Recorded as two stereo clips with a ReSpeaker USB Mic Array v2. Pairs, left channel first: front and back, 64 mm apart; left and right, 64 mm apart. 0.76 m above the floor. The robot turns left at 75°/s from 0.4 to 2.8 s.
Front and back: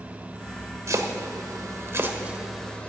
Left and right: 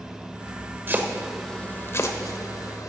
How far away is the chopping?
About 1.0 m.